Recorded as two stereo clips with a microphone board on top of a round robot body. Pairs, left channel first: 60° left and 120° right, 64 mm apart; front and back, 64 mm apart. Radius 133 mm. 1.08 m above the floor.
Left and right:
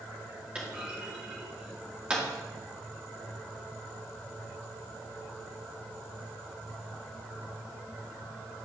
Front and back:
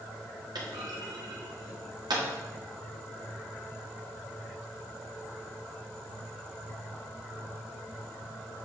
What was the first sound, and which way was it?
A clunk, 170° left.